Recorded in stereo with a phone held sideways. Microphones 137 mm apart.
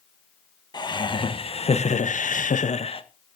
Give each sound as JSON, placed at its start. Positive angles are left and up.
{"t": 0.7, "sound": "laughter", "side_deg": 35, "distance_m": 1.8}